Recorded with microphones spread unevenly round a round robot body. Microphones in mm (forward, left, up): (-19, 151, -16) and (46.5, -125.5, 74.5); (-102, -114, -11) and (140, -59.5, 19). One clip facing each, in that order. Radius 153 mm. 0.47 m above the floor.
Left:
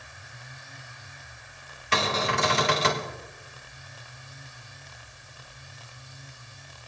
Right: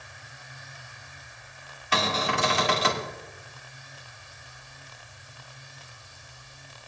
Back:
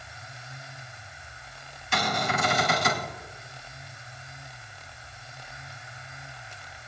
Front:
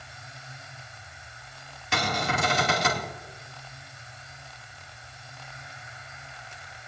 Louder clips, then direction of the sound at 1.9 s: Left 1 dB, even; 55° left.